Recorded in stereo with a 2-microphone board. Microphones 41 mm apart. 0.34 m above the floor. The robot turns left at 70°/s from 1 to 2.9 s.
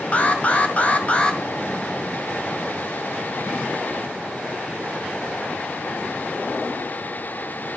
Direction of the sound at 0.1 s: 40° left (ahead or behind).